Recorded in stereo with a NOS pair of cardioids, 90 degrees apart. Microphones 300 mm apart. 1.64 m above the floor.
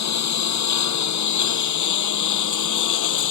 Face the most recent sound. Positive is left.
turn(degrees=70)